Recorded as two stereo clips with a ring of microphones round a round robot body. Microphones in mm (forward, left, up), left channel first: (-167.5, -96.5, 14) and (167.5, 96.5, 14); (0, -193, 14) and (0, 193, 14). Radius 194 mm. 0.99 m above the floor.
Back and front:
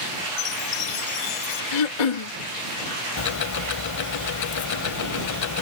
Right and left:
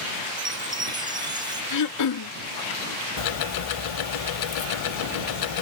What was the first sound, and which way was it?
A chime, 170° left.